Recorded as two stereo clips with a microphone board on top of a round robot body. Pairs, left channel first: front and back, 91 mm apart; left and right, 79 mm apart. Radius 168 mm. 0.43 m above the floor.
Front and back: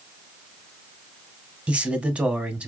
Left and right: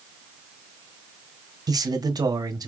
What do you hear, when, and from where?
1.7 s a man speaking: 105° right, 1.4 m